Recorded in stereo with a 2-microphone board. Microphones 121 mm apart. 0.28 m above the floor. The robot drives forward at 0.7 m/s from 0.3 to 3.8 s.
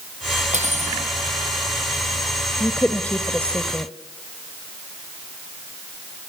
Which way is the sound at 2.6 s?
10° left (ahead or behind).